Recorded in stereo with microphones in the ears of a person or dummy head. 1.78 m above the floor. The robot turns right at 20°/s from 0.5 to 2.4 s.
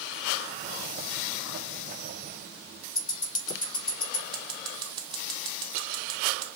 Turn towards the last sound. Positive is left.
turn(degrees=-25)  # may be behind; listen again after turning